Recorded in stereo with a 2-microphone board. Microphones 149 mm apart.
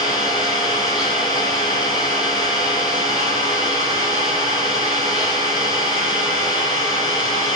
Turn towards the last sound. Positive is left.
turn(degrees=-5)  # may be behind; listen again after turning